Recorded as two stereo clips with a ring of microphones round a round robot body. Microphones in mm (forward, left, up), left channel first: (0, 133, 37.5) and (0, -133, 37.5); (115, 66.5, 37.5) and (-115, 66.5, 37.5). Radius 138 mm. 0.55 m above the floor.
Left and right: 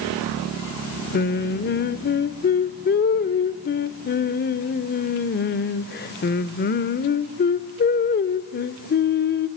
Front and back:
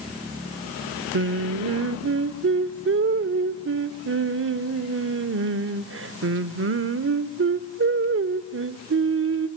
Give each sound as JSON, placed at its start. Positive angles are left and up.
{"t": 1.1, "sound": "singing", "azimuth_deg": 145, "distance_m": 0.8}